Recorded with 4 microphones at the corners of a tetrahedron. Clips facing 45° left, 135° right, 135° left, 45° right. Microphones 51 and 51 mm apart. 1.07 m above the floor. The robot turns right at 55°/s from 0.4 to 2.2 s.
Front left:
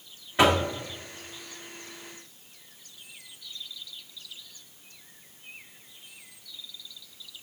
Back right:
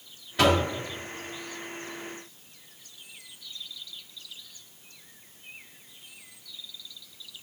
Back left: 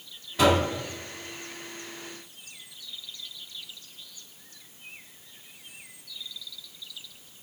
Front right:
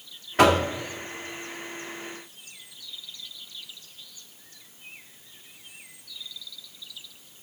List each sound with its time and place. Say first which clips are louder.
0.4 s knocking: front left 1 dB, front right 3 dB; 15° right, 1.7 m; by 0.6 s 5° right, 1.7 m